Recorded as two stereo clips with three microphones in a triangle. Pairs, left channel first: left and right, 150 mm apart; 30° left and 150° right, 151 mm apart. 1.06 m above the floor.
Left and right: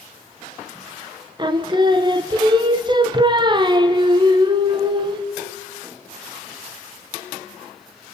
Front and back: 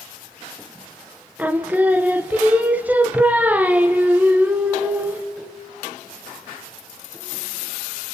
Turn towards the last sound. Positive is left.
turn(degrees=-80)